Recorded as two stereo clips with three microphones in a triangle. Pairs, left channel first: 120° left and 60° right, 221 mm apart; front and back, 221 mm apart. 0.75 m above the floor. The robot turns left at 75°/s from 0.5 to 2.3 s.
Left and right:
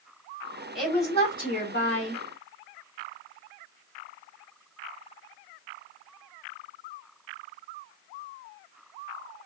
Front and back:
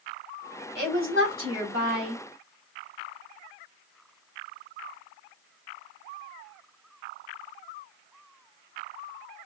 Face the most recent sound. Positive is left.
turn(degrees=100)